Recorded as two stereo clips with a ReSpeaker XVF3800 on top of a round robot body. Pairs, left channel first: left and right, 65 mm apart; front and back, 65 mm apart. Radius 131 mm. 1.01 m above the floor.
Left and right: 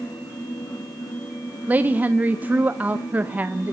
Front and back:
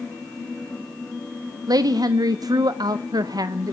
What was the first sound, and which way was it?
A woman speaking, 160° right.